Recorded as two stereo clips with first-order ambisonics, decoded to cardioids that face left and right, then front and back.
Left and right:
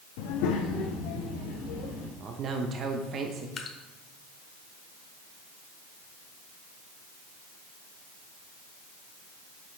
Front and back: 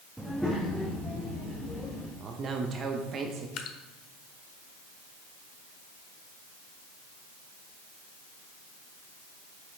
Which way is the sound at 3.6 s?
25° left.